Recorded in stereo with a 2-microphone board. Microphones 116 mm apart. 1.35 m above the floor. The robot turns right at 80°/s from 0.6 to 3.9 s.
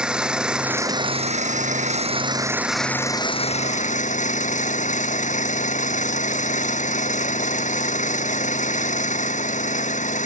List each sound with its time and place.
0.0 s an engine running: 175° right; by 10.3 s 90° left